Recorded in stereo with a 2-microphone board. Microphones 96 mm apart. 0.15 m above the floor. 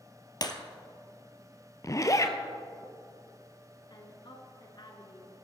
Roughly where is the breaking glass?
Left.